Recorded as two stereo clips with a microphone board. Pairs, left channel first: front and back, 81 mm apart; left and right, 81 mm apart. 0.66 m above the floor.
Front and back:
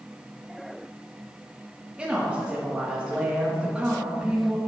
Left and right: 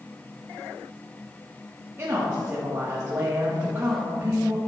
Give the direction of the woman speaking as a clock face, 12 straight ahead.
4 o'clock.